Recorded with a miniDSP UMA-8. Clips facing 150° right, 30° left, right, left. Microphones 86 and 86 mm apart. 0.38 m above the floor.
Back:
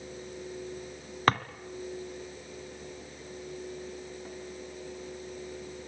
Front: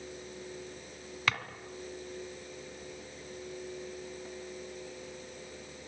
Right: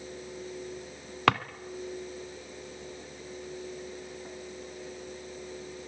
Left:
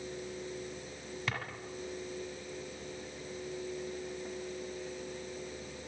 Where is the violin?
I don't hear a violin.